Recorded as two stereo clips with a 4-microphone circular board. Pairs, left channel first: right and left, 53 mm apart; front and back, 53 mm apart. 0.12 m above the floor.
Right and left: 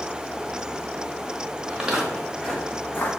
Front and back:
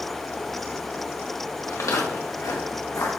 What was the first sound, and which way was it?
Footsteps, 25° left.